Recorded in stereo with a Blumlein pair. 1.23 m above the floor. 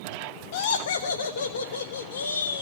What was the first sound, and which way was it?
Laughter, 55° left.